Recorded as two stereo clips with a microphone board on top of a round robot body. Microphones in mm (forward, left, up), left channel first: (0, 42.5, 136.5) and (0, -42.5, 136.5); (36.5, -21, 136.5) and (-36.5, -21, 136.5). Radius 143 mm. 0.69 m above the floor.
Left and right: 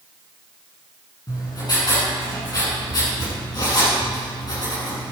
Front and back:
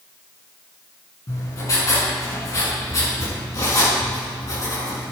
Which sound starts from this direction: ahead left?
Writing, at 1.3 s.